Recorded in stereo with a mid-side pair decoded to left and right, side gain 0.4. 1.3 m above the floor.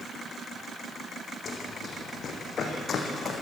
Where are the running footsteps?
55° left, 4.5 m.